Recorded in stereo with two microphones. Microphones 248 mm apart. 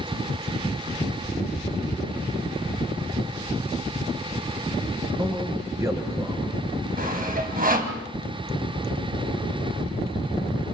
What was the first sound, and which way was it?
A man speaking, 15° right (ahead or behind).